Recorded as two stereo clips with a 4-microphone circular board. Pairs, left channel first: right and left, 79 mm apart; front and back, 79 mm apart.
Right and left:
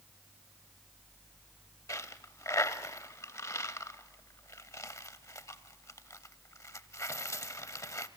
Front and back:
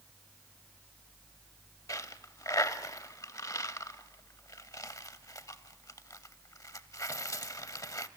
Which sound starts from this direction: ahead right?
A dropped coin, at 1.9 s.